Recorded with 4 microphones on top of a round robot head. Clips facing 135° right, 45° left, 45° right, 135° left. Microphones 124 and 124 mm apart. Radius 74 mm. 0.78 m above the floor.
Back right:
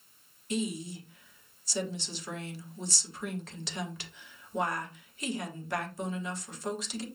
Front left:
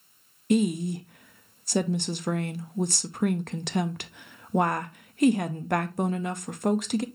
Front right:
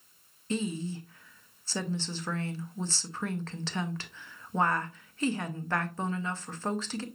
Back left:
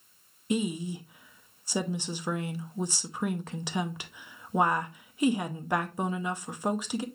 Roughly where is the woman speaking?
Ahead left.